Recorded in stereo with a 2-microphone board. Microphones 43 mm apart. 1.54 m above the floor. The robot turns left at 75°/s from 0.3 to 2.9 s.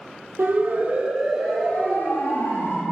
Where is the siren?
70° right (ahead or behind), 8 m; by 2.8 s 75° left (ahead or behind), 7.5 m.